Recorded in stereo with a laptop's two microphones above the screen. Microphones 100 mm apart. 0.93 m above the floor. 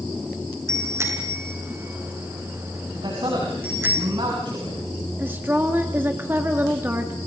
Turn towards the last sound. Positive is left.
turn(degrees=-20)  # may be behind; listen again after turning